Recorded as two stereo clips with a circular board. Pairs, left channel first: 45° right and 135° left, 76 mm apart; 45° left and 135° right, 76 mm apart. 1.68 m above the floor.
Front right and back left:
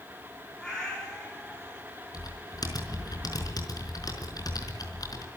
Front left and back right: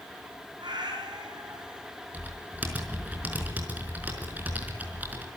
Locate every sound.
0.6 s a cat meowing: 125° right, 8.5 m
2.1 s typing on a keyboard: 70° right, 4.5 m